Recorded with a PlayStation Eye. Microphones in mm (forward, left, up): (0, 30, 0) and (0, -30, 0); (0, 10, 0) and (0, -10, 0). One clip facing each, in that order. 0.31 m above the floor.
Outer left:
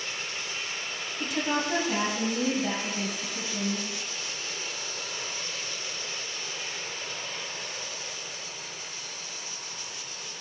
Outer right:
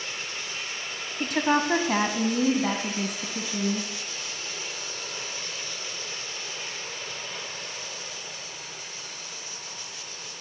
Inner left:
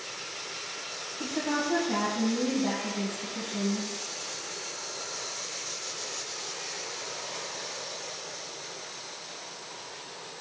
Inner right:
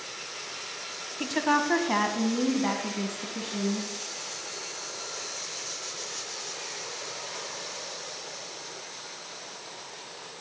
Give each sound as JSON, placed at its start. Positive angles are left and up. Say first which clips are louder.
{"t": 1.2, "sound": "a woman speaking", "louder": "outer right 5 dB, inner right 5 dB", "side_deg": -55, "distance_m": 1.7}